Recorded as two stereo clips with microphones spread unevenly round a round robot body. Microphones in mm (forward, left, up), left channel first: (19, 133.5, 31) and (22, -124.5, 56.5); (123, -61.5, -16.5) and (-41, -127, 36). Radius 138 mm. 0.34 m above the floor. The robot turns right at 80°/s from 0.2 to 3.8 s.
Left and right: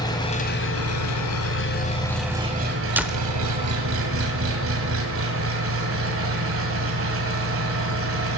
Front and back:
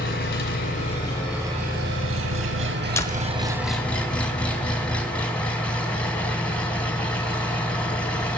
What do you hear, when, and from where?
0.0 s an engine running: 20° left, 1.8 m; by 8.4 s 55° right, 1.8 m
3.0 s a door slam: 5° right, 0.9 m; by 3.3 s 25° left, 0.9 m